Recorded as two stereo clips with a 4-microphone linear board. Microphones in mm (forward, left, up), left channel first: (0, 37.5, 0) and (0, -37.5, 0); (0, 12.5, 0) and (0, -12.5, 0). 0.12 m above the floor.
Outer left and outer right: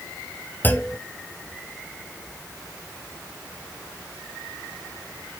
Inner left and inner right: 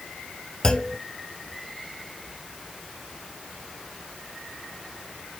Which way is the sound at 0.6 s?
25° left (ahead or behind).